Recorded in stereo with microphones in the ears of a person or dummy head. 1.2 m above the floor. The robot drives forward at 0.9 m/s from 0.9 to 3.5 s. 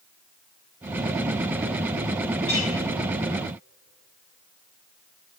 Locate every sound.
2.5 s a clink: 25° left (ahead or behind), 3 m